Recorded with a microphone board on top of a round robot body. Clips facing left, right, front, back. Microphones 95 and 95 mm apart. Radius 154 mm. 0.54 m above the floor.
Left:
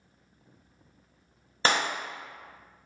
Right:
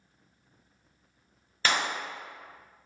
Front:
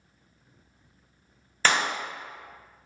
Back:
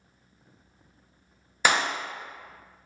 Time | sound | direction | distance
1.6 | a clap | 110° left | 0.6 m